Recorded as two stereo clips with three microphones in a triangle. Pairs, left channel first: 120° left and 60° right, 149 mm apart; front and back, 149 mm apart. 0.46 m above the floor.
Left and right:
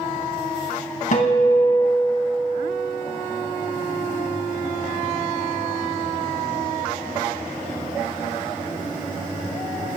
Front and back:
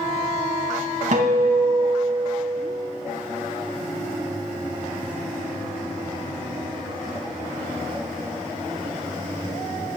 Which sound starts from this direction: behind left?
A guitar, at 1.1 s.